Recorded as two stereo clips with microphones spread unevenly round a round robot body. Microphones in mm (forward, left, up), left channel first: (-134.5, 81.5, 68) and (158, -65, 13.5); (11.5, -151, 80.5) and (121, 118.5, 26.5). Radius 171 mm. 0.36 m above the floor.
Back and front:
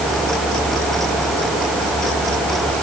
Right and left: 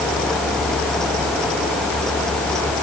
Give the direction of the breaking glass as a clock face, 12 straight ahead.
I don't hear breaking glass.